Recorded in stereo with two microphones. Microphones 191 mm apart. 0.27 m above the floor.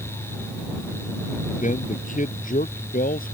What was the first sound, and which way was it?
A man speaking, 40° left (ahead or behind).